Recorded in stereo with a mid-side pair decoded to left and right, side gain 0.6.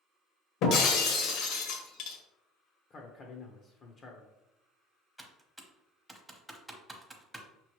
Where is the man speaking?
40° left, 0.8 m.